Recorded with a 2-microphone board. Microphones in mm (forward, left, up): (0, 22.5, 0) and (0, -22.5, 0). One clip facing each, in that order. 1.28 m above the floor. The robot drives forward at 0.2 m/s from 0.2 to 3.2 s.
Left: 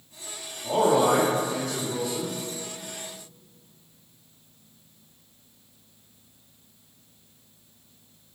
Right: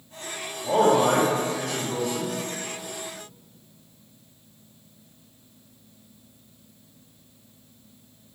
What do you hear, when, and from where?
0.6 s a man speaking: 75° right (ahead or behind), 1.0 m; by 2.4 s 55° right (ahead or behind), 1.2 m